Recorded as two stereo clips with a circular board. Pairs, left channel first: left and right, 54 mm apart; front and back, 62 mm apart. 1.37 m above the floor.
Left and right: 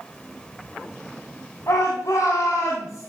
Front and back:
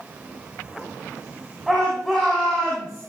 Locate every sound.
1.7 s a shout: 85° left, 8 m; by 3.0 s 90° left, 8.5 m